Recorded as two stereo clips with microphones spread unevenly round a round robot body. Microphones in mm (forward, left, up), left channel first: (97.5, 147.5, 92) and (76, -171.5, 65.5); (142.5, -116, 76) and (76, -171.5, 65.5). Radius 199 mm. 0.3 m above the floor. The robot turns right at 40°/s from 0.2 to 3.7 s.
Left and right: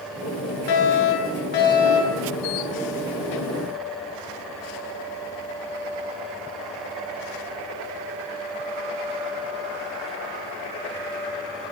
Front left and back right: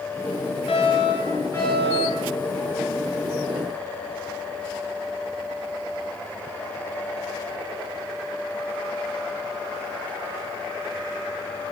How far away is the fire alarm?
About 10 m.